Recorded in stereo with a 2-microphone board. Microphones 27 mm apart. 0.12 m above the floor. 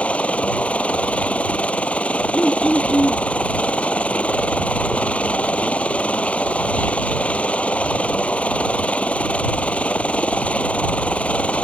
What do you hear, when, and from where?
0.0 s a helicopter: 65° left (ahead or behind)
2.3 s throat clearing: 35° left (ahead or behind)